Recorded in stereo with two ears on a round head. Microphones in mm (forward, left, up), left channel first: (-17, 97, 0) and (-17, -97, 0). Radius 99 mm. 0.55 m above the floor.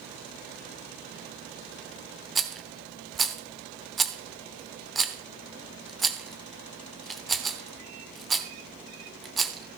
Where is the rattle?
Centre (ahead or behind), 0.7 m.